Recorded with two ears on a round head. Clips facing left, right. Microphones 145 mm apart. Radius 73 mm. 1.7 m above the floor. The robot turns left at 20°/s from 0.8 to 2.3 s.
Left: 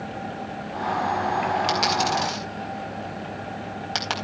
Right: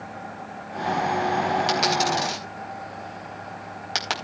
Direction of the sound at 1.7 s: Centre (ahead or behind).